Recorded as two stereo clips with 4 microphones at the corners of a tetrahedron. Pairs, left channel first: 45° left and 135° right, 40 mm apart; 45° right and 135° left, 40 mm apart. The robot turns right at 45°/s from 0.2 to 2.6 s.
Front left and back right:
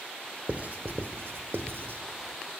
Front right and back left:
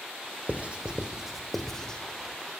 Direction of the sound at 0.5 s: Straight behind.